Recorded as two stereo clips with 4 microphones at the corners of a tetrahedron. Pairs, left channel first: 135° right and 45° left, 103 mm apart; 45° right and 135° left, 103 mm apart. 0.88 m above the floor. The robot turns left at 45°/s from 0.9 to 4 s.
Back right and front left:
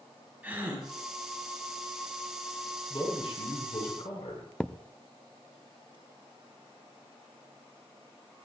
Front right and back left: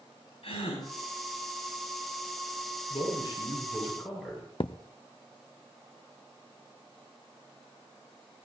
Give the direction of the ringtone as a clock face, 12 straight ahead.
I don't hear a ringtone.